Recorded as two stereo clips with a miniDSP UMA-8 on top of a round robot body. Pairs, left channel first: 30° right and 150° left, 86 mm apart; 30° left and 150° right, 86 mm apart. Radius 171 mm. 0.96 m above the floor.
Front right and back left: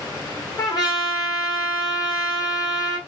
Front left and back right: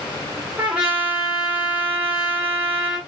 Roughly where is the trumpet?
Right.